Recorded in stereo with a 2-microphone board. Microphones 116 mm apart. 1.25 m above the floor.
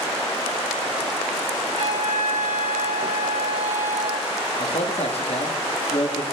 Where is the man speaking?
60° left (ahead or behind), 2.5 m.